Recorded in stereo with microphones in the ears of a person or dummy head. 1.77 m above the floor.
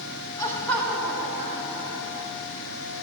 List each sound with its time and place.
0.4 s laughter: 20° left (ahead or behind), 1.3 m; by 2.3 s 30° right (ahead or behind), 1.8 m